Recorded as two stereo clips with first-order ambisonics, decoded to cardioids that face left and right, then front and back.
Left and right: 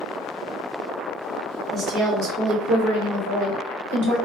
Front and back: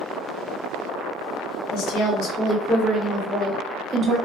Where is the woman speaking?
30° right, 0.8 m; by 4.2 s 95° right, 1.3 m.